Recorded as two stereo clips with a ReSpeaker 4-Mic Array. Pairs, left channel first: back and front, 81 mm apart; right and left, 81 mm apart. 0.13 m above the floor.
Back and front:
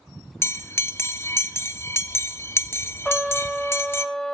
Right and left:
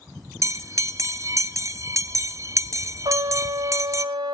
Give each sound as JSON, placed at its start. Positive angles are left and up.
{"t": 0.4, "sound": "a bell", "azimuth_deg": 130, "distance_m": 0.8}
{"t": 3.0, "sound": "a trumpet", "azimuth_deg": 100, "distance_m": 1.5}